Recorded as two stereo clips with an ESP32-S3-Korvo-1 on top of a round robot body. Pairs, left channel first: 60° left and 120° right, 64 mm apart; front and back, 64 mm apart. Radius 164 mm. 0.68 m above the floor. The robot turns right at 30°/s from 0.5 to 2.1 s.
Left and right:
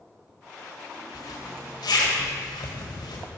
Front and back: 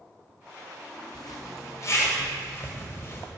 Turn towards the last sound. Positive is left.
turn(degrees=55)